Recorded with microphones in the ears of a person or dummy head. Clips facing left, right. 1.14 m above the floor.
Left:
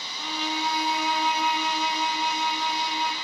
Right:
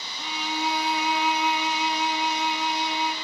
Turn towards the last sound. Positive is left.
turn(degrees=0)  # may be behind; listen again after turning